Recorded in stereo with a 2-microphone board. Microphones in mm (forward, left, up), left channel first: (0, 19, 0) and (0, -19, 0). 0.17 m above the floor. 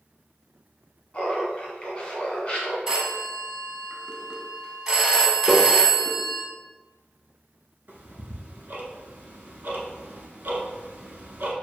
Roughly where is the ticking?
Right.